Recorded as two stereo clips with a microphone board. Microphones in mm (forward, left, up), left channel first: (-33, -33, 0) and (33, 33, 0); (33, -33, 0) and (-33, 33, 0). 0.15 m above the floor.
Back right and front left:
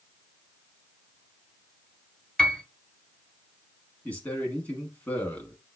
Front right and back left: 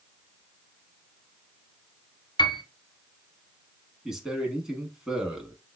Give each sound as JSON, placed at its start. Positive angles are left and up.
{"t": 2.4, "sound": "a piano", "azimuth_deg": -55, "distance_m": 1.0}
{"t": 4.0, "sound": "a man speaking", "azimuth_deg": -155, "distance_m": 1.1}